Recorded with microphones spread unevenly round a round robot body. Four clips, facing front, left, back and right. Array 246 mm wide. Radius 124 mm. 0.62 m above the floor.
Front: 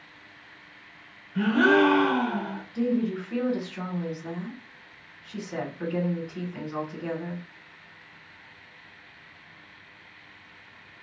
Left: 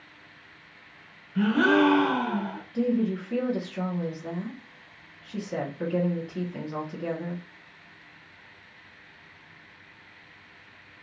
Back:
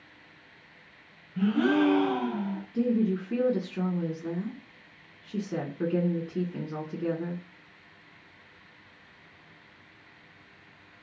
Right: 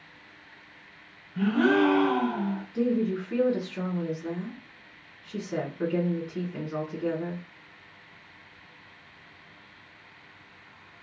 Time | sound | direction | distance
1.4 | a gasp | 30° left | 0.9 m
2.7 | a woman speaking | 165° right | 1.5 m